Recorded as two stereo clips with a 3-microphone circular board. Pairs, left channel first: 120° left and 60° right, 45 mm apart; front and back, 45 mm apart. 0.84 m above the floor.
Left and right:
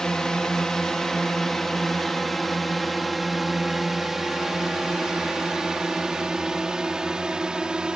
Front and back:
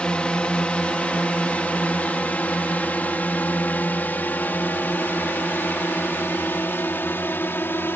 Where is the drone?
50° left; by 8.0 s 5° left.